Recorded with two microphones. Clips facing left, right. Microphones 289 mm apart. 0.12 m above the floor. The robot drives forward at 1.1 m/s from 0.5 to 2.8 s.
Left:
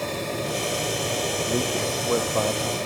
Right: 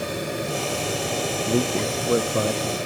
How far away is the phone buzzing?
I don't hear a phone buzzing.